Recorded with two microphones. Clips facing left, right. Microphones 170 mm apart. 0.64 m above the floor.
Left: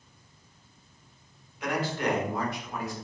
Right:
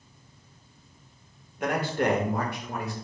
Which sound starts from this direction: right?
A man speaking, at 1.6 s.